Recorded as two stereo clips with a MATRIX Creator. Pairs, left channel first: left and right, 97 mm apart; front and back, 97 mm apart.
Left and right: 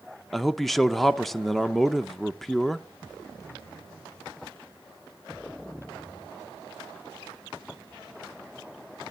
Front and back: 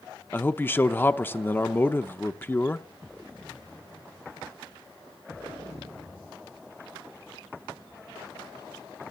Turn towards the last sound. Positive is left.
turn(degrees=5)